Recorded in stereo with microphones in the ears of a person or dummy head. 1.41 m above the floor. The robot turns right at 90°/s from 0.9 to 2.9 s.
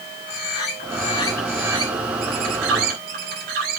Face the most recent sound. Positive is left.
turn(degrees=-55)